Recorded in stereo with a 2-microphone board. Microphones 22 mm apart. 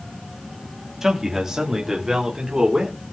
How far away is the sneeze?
No sneeze in this recording.